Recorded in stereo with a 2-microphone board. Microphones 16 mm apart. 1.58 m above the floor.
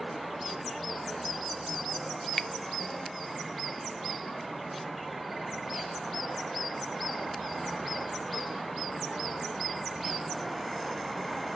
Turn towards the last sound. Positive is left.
turn(degrees=30)  # may be behind; listen again after turning